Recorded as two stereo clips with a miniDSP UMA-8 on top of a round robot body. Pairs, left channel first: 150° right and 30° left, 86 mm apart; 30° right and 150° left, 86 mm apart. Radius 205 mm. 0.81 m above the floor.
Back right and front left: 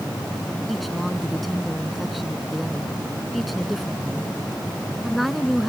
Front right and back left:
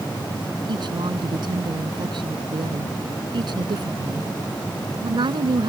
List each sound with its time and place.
0.7 s a woman speaking: 120° left